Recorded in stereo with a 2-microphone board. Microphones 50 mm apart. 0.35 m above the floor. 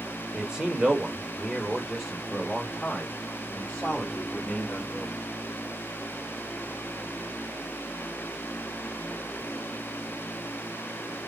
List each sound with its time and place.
0.3 s a man speaking: 20° right (ahead or behind), 1.3 m; by 5.1 s 15° left (ahead or behind), 3 m